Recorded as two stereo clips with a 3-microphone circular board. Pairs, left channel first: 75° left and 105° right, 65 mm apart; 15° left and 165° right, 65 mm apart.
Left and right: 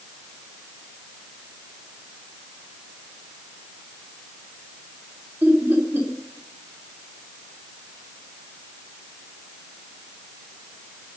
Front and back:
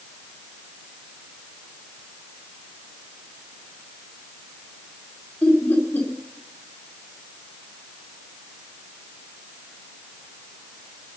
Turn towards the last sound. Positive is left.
turn(degrees=-50)